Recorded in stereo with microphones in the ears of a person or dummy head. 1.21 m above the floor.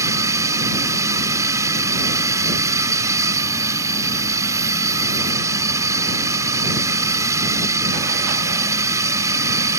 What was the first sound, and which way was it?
A drone, 20° right (ahead or behind).